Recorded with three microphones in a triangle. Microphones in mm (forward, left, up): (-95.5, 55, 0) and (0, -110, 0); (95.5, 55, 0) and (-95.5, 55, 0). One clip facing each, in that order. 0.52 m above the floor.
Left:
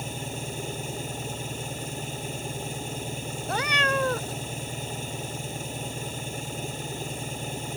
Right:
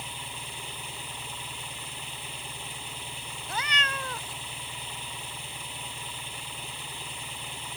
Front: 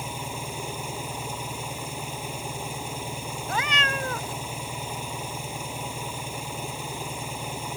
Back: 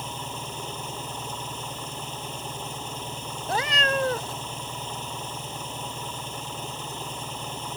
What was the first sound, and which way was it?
An engine running, 80° left.